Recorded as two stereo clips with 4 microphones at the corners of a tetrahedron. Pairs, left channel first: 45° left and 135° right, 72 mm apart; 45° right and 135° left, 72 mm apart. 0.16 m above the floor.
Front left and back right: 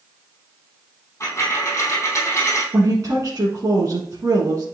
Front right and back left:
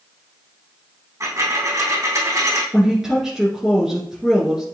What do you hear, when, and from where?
1.2 s a dropped coin: 95° left, 3 m
2.7 s a woman speaking: 145° right, 1.8 m